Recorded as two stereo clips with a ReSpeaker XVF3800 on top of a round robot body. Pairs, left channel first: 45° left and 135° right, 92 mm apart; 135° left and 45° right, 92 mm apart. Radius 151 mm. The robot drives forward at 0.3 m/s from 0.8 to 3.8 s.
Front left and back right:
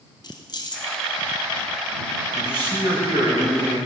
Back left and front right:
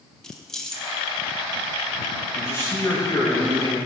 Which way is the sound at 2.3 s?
165° right.